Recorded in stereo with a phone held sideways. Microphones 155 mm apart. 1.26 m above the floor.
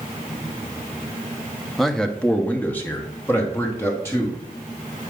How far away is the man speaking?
About 0.6 m.